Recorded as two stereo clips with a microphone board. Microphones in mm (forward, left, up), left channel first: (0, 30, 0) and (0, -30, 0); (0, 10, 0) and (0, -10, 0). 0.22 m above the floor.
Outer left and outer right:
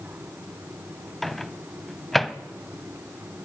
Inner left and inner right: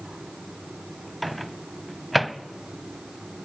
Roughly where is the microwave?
Centre.